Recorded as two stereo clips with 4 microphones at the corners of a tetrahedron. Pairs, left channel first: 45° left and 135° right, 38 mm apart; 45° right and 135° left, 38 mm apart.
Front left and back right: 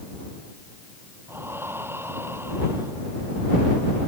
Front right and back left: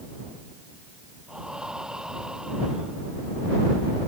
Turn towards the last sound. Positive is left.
turn(degrees=-150)